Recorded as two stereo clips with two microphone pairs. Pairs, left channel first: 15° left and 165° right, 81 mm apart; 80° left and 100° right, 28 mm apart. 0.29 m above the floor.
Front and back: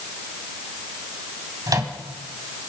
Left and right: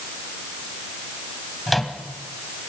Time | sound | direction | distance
1.7 | a microwave | 170° left | 1.9 m